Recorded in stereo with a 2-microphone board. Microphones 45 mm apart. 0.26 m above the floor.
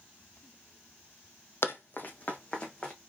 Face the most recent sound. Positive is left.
turn(degrees=15)  # may be behind; listen again after turning